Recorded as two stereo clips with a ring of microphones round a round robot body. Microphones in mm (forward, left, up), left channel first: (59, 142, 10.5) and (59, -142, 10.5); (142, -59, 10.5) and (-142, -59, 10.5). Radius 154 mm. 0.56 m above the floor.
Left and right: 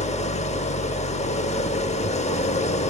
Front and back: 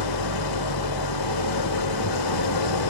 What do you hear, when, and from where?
0.0 s an engine running: 20° left, 0.9 m